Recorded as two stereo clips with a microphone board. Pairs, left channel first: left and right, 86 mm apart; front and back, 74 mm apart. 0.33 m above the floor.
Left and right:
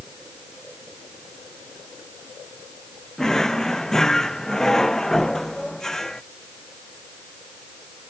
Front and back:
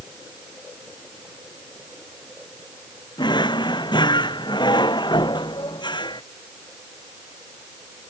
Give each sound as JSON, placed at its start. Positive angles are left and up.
{"t": 3.2, "sound": "a drawer", "azimuth_deg": 5}